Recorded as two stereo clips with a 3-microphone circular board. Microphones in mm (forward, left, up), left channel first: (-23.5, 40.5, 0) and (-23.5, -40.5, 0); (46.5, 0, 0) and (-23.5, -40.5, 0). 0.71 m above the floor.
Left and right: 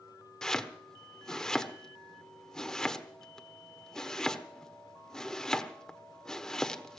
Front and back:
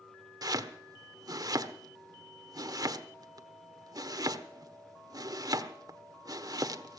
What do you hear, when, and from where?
0.4 s chopping: 175° left, 1.1 m